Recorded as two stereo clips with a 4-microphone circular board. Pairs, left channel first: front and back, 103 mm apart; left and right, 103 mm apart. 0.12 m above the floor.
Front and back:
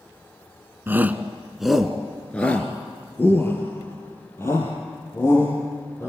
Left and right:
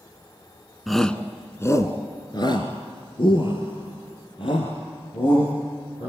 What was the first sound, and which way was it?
A shout, straight behind.